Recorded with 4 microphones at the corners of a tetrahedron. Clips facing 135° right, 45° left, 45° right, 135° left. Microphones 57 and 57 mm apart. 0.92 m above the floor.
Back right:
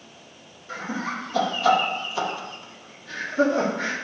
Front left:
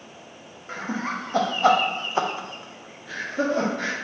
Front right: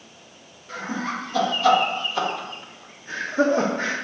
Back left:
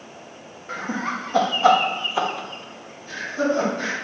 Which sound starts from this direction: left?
Laughter, at 0.7 s.